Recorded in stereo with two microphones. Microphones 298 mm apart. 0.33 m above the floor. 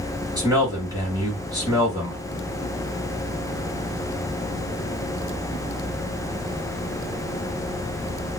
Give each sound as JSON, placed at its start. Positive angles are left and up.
{"t": 0.4, "sound": "a man speaking", "side_deg": -15, "distance_m": 2.5}